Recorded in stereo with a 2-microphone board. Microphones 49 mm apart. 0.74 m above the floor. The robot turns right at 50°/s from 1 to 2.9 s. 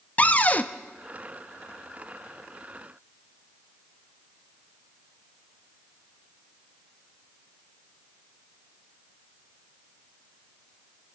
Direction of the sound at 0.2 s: 30° left (ahead or behind).